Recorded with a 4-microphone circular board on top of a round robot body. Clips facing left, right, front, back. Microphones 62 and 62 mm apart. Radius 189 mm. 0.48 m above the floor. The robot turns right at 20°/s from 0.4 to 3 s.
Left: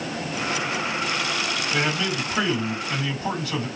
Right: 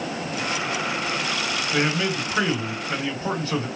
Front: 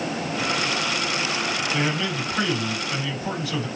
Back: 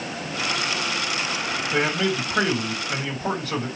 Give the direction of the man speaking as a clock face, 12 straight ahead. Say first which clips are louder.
Right 2 dB, back 6 dB; 6 o'clock.